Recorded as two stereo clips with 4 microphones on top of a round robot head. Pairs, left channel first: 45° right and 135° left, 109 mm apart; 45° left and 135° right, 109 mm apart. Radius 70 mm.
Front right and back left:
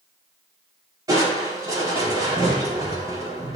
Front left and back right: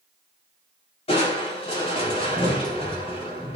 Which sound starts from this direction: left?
Crushing, at 1.1 s.